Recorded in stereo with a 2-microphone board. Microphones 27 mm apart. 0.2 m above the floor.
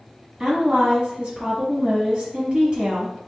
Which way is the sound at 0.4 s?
35° right (ahead or behind).